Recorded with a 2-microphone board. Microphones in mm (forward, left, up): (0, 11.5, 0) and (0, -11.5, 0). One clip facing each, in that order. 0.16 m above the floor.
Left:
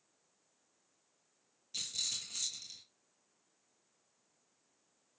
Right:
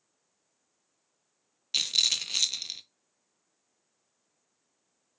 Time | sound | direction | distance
1.7 | a rattle | 85° right | 0.5 m